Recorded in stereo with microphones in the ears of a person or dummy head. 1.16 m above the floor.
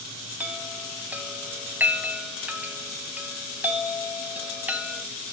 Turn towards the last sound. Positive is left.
turn(degrees=-5)  # may be behind; listen again after turning